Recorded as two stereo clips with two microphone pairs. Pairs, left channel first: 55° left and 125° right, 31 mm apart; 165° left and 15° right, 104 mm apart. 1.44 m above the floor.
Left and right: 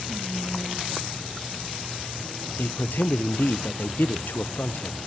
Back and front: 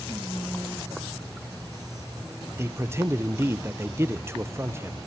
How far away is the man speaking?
About 0.8 m.